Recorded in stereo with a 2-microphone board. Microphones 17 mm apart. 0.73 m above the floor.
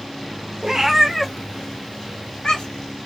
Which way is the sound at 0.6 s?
35° right (ahead or behind).